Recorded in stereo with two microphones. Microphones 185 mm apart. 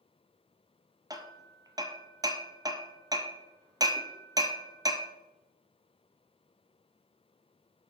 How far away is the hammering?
About 0.9 m.